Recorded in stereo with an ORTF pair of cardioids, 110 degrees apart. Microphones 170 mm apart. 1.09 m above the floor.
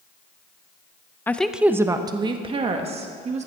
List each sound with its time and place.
1.3 s a woman speaking: 15° left, 0.6 m; by 3.5 s 40° right, 1.7 m